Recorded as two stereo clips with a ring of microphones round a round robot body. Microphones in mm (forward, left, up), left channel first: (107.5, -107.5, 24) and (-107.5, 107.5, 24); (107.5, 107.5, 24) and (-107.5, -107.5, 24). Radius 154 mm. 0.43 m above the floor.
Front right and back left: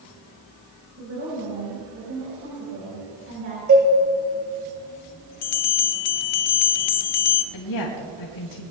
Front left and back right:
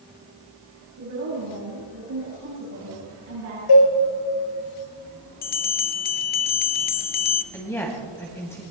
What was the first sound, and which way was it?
A woman speaking, 175° right.